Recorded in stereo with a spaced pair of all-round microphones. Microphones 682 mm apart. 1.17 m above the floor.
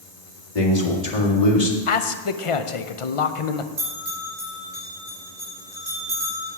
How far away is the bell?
About 4.5 m.